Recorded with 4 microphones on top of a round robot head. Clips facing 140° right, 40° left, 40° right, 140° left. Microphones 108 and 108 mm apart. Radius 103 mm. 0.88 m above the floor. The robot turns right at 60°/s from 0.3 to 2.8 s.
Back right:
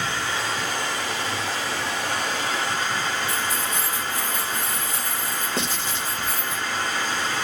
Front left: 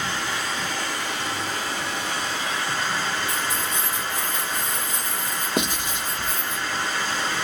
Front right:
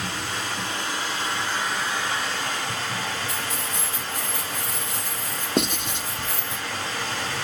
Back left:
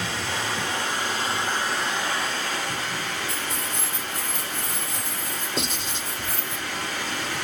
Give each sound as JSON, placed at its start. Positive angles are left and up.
{"t": 0.0, "sound": "running water", "azimuth_deg": 145, "distance_m": 7.5}
{"t": 3.3, "sound": "keys jangling", "azimuth_deg": -60, "distance_m": 3.5}
{"t": 5.6, "sound": "writing", "azimuth_deg": -35, "distance_m": 1.4}